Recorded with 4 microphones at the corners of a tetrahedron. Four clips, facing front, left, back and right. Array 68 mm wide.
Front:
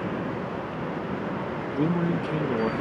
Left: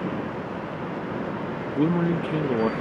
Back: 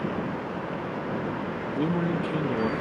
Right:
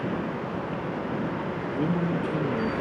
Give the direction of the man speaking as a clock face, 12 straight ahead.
9 o'clock.